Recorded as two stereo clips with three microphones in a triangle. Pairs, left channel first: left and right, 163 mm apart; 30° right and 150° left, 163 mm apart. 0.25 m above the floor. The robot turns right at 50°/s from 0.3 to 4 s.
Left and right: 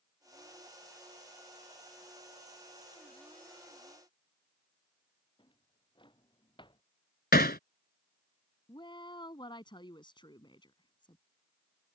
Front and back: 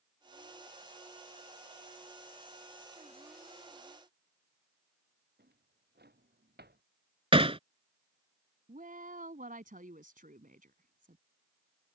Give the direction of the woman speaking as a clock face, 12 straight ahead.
7 o'clock.